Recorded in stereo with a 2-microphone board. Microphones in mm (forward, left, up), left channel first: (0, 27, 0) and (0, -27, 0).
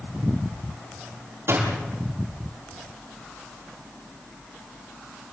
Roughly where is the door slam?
Right.